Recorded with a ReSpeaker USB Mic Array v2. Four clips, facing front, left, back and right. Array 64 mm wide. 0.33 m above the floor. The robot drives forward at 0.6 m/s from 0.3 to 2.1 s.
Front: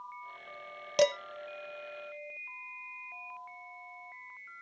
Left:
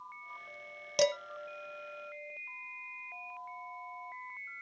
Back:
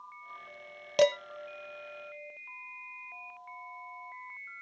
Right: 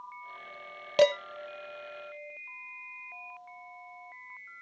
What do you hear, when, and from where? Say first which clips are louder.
1.0 s dishes clattering: right 6 dB, back 2 dB; 105° right, 0.6 m; by 1.2 s 125° right, 0.6 m